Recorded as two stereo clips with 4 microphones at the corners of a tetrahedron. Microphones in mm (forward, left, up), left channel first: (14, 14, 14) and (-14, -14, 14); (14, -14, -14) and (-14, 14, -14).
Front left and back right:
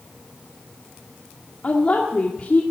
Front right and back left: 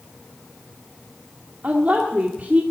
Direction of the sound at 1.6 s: 95° left.